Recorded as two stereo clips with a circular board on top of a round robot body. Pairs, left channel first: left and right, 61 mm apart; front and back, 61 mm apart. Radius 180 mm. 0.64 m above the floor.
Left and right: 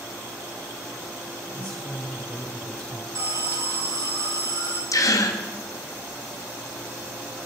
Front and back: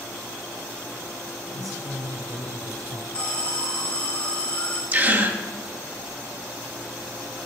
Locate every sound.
1.4 s a woman speaking: 170° left, 5 m
3.1 s an alarm: 75° right, 4.5 m
4.9 s a gasp: 120° left, 1.5 m